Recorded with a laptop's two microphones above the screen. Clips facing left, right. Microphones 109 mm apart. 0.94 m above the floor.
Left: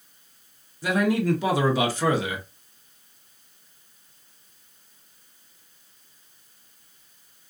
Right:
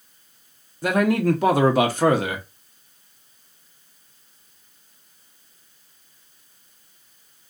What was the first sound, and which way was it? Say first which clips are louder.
A man speaking: right 3 dB; 55° right (ahead or behind).